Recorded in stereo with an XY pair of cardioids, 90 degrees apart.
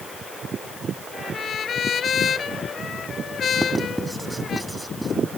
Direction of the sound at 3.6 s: 10° right.